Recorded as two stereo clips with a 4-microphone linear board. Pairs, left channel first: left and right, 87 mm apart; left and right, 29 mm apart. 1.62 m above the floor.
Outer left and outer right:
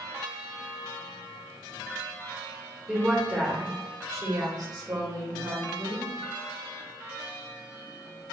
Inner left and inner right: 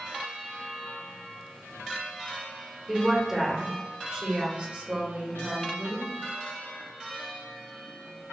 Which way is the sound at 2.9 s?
5° right (ahead or behind).